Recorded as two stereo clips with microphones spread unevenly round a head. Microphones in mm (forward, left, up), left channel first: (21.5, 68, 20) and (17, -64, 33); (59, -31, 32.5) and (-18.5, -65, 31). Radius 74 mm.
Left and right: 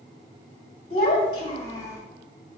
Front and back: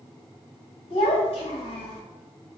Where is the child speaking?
55° left, 1.2 m; by 2.0 s 25° left, 0.8 m.